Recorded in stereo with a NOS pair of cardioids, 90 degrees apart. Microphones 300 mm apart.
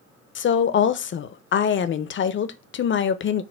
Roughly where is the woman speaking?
Ahead left.